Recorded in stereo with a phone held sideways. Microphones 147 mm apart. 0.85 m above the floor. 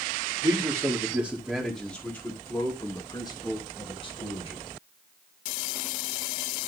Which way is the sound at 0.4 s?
25° right (ahead or behind).